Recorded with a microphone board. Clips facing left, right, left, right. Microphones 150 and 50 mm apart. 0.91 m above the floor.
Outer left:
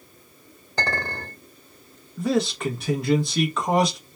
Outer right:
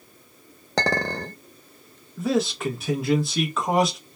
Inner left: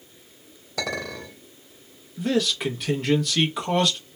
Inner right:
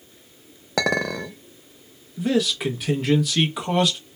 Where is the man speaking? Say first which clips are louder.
Even, inner right 2 dB; centre (ahead or behind), 0.8 m.